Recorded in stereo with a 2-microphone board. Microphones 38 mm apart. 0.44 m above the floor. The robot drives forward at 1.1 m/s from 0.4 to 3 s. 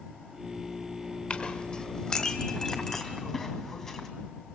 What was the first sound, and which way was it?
A clink, 35° left (ahead or behind).